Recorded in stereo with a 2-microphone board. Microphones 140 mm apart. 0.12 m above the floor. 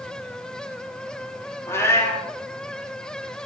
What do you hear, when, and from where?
1.7 s a cat meowing: 20° left (ahead or behind), 1.8 m